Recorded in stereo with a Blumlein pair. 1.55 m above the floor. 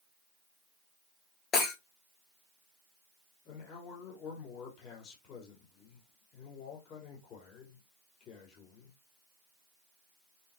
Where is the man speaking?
30° left, 6 m.